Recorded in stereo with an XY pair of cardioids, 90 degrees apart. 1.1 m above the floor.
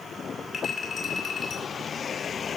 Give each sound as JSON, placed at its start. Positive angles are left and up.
{"t": 0.5, "sound": "a clink", "azimuth_deg": 35, "distance_m": 6.0}